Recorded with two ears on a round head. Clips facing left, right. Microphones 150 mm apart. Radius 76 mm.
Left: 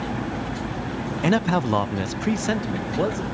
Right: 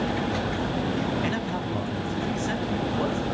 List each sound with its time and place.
1.2 s a man speaking: 60° left (ahead or behind), 0.6 m; by 3.2 s 40° left (ahead or behind), 1.1 m